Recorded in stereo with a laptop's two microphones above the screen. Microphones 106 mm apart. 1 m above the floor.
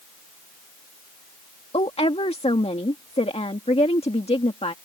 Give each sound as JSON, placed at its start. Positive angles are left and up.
{"t": 1.7, "sound": "a woman speaking", "side_deg": 75}